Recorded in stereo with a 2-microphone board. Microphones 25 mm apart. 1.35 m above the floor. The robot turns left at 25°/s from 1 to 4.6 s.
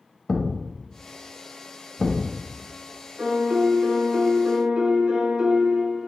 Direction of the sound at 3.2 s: 75° right.